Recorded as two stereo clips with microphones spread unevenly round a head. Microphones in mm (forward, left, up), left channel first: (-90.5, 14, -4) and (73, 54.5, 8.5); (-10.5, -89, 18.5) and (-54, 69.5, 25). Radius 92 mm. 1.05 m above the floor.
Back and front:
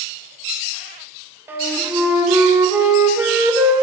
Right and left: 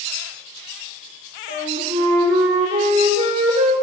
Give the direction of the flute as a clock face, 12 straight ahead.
9 o'clock.